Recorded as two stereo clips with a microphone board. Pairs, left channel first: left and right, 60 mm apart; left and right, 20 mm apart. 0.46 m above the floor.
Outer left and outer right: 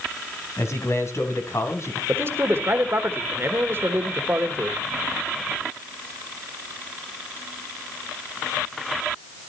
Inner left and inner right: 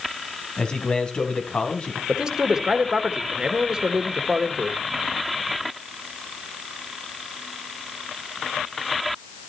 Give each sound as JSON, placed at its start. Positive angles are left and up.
{"t": 0.6, "sound": "a man speaking", "side_deg": 50, "distance_m": 3.0}
{"t": 2.1, "sound": "a man speaking", "side_deg": -40, "distance_m": 1.3}